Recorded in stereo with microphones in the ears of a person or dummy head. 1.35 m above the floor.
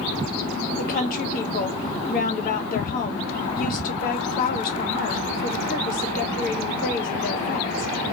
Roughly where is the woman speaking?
Left.